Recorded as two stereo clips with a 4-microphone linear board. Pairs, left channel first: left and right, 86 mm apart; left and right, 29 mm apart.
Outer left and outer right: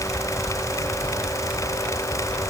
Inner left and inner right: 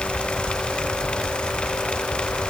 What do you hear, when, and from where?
Only background noise.